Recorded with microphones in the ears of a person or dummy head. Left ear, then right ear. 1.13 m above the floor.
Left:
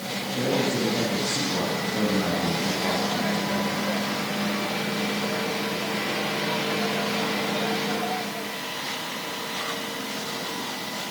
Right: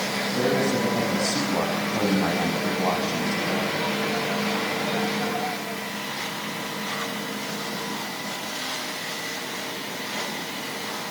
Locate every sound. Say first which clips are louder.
0.2 s a man speaking: right 1 dB; 70° right (ahead or behind), 8.5 m